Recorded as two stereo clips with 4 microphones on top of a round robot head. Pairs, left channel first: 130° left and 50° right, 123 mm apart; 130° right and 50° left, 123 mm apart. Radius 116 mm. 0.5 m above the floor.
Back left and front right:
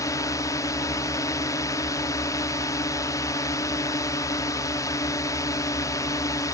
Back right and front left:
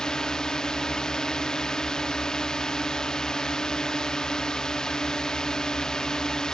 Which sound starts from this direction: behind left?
A drone, at 0.0 s.